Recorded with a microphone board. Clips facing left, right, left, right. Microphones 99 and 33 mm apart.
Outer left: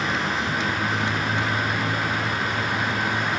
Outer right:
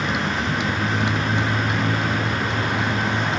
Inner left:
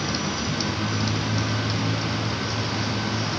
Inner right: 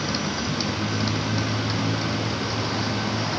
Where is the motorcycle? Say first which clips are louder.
Outer right 2 dB, even; 15° right (ahead or behind); by 3.4 s 20° right (ahead or behind).